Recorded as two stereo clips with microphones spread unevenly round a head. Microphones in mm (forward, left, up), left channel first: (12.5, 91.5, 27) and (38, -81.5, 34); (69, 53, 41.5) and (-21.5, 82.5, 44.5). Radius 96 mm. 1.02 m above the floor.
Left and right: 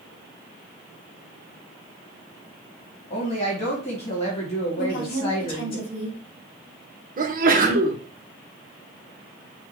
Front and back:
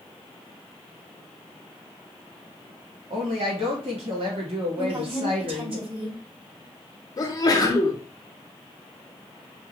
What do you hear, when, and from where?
3.1 s a woman speaking: 155° left, 2 m
4.8 s a woman speaking: 140° left, 3.5 m
7.2 s a sneeze: 55° right, 1.2 m